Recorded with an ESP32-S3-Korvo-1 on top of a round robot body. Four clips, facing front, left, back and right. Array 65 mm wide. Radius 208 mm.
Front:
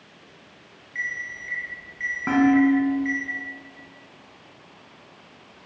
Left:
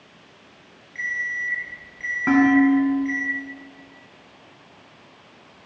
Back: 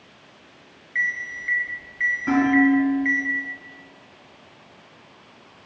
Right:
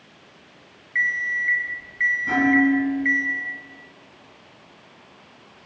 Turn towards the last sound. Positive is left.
turn(degrees=55)